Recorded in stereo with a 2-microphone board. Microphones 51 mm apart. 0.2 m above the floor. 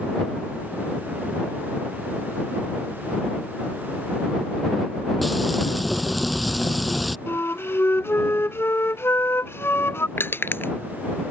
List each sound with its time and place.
5.2 s frying: centre (ahead or behind)
7.3 s a flute: 55° left (ahead or behind)
10.2 s crushing: 45° left (ahead or behind)